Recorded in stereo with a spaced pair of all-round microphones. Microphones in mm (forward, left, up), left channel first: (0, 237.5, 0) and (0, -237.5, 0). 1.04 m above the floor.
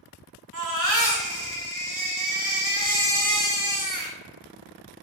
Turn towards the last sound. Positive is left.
turn(degrees=-40)  # may be behind; listen again after turning